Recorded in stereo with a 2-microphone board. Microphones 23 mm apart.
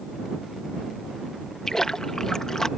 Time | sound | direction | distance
1.7 | a splash | 25° left (ahead or behind) | ?